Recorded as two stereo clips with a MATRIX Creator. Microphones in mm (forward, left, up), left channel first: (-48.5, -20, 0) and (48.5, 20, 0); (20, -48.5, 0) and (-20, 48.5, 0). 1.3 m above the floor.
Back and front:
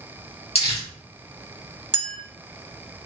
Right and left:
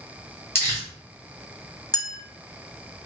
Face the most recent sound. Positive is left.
turn(degrees=-15)